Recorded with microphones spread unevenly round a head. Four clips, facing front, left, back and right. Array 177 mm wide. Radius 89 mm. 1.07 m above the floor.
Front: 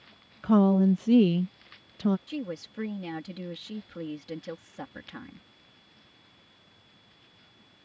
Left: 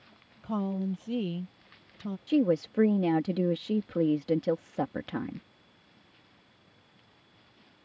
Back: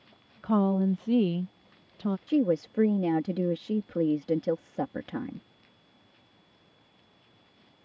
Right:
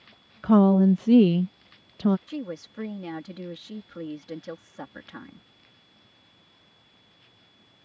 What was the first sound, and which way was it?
A woman speaking, 70° right.